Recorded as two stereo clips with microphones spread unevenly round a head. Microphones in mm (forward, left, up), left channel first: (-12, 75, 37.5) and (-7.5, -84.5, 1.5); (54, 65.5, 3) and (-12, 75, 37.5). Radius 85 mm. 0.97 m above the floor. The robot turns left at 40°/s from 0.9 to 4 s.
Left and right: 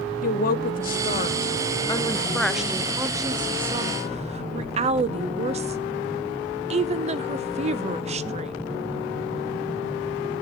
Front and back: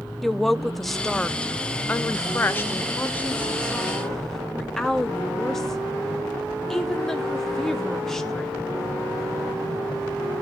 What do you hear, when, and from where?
0.2 s a woman speaking: 55° left, 0.7 m; by 8.6 s 70° right, 0.7 m